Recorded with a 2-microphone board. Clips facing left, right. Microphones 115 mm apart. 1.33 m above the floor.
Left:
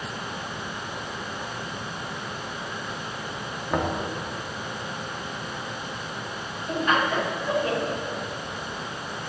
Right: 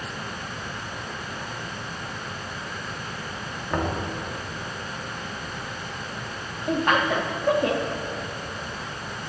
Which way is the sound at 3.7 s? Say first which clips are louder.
Left 1 dB; 10° left (ahead or behind).